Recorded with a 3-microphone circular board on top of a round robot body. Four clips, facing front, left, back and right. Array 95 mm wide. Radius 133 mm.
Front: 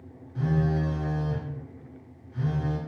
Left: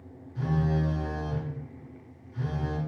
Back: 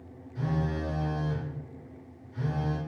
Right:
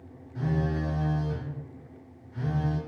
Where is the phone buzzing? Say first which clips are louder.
Left 1 dB, front 4 dB; 55° right, 1.2 m.